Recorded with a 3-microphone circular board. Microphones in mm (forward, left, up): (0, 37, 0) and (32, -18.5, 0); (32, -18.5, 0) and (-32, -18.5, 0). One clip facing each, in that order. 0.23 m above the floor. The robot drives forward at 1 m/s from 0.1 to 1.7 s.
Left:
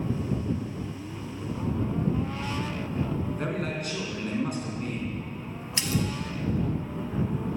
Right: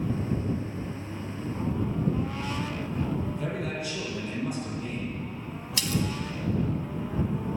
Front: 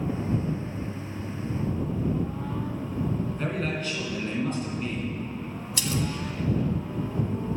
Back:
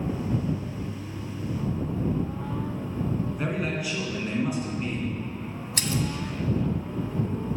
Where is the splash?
170° left, 0.9 m.